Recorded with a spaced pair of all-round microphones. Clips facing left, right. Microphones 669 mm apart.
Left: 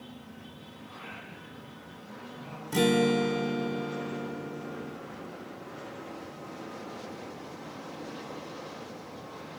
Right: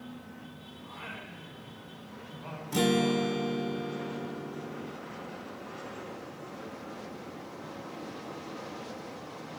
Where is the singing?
85° right, 4.5 m.